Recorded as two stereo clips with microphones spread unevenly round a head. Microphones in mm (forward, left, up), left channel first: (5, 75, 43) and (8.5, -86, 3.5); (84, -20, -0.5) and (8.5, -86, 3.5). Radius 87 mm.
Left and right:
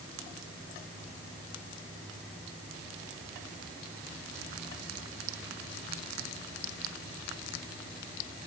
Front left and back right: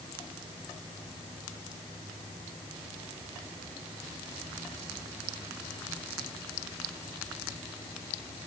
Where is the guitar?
I don't hear a guitar.